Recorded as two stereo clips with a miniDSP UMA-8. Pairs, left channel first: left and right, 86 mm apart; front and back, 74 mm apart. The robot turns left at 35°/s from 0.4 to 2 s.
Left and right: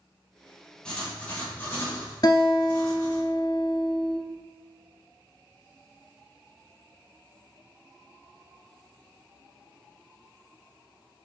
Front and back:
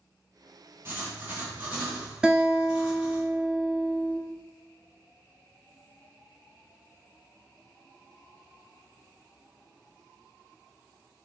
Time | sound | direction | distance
0.8 | writing | 155° left | 1.9 m
2.2 | a guitar | 100° left | 0.8 m